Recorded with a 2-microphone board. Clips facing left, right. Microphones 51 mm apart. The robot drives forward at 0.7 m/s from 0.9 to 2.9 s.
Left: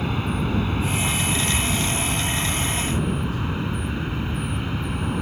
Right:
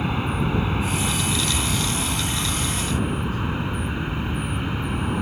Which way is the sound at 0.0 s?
10° right (ahead or behind).